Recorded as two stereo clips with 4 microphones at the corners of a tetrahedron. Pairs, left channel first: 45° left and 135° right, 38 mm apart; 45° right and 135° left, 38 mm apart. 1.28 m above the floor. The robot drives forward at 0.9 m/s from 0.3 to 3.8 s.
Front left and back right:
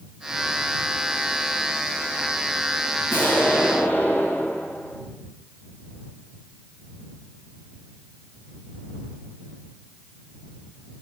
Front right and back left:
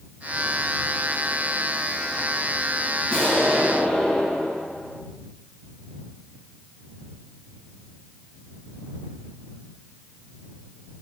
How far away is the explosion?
About 9 m.